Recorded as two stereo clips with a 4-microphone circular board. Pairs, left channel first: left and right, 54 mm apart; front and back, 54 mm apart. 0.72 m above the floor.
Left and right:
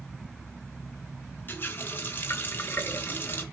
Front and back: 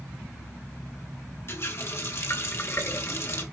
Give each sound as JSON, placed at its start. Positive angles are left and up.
{"t": 1.5, "sound": "a running tap", "azimuth_deg": 40, "distance_m": 2.0}